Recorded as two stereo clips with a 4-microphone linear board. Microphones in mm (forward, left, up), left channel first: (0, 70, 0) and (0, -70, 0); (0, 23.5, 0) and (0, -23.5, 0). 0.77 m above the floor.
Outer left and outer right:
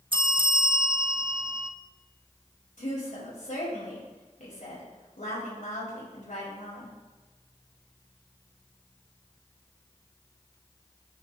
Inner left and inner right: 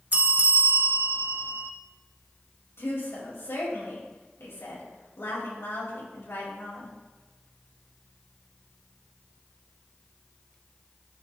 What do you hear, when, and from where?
0.1 s a bell: 40° right (ahead or behind), 0.7 m
2.8 s a woman speaking: 80° left, 5 m